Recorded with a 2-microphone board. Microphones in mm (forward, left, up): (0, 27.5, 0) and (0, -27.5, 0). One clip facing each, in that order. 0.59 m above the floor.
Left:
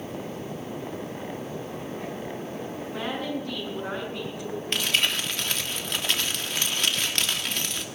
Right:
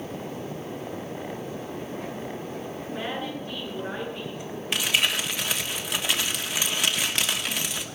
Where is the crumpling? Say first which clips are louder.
Right 1 dB; 10° right (ahead or behind), 1.4 m.